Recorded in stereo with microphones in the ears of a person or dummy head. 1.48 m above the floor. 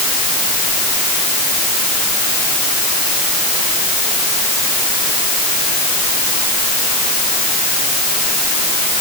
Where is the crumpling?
No crumpling in this recording.